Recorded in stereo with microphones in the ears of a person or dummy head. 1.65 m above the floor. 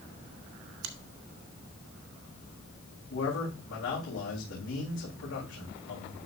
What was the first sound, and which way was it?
A finger snap, 80° right.